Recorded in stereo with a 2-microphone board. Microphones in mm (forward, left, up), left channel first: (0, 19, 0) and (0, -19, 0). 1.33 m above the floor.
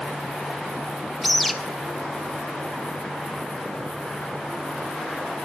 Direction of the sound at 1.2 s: 5° left (ahead or behind).